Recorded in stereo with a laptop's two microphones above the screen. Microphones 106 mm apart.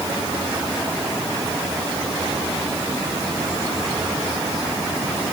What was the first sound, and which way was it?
Only background noise.